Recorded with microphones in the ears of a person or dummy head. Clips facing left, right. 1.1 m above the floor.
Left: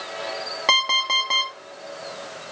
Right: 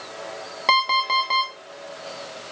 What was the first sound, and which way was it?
An alarm clock, 5° left (ahead or behind).